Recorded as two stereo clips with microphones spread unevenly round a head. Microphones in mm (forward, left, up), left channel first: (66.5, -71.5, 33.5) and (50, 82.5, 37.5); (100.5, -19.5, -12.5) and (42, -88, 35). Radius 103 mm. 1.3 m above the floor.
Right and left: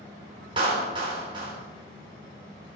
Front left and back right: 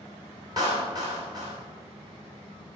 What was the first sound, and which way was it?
A clap, 165° left.